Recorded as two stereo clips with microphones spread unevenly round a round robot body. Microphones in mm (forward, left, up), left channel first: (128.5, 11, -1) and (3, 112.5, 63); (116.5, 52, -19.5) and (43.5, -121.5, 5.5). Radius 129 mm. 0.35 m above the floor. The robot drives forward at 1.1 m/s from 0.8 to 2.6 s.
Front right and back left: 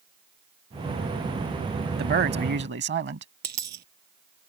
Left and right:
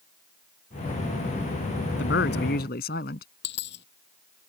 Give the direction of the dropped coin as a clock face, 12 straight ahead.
8 o'clock.